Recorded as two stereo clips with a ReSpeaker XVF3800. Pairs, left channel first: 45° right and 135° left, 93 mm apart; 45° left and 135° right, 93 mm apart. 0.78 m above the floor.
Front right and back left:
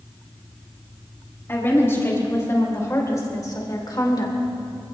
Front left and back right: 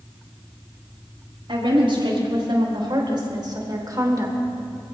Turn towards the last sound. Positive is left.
turn(degrees=-80)